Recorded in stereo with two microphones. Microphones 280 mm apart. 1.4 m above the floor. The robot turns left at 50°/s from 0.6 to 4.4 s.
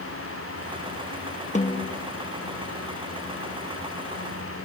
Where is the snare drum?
25° left (ahead or behind), 0.7 m.